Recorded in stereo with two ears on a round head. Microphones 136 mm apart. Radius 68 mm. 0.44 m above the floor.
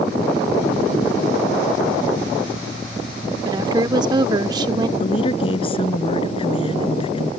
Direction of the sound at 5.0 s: 35° left (ahead or behind).